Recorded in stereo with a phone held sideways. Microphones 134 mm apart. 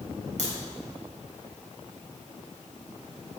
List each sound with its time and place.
0.4 s a crack: 65° right (ahead or behind), 3.5 m